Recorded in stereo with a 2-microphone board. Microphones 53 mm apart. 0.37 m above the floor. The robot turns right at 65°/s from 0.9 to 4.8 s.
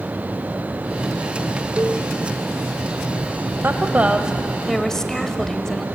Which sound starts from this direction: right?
A cowbell, at 1.8 s.